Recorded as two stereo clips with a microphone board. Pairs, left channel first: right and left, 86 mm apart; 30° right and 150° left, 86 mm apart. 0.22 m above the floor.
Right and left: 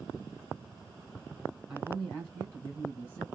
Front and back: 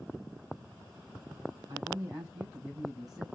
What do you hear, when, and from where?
1.7 s a man speaking: 175° left, 1.6 m; by 3.2 s 115° right, 1.5 m